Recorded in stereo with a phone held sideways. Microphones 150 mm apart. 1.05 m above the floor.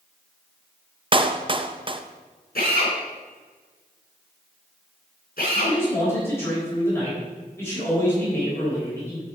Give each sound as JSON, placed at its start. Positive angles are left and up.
{"t": 1.1, "sound": "a clap", "side_deg": -35, "distance_m": 0.5}
{"t": 2.5, "sound": "a drill", "side_deg": 85, "distance_m": 4.0}
{"t": 5.5, "sound": "a man speaking", "side_deg": 15, "distance_m": 4.0}